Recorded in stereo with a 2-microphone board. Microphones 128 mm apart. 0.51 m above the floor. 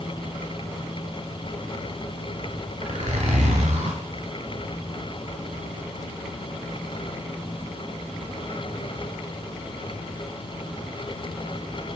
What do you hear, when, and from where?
2.8 s a zipper: 70° right (ahead or behind), 2 m